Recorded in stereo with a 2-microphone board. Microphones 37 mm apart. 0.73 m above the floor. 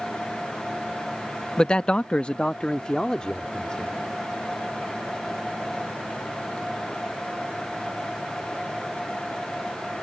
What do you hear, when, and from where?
1.6 s a man speaking: 20° left (ahead or behind)